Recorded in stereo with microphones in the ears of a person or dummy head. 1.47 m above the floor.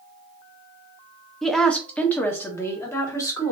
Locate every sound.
1.4 s a woman speaking: 5° left (ahead or behind), 0.7 m; by 3.5 s 20° left (ahead or behind), 1.8 m